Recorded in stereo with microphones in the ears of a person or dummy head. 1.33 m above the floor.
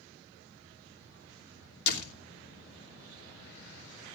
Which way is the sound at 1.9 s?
55° left (ahead or behind).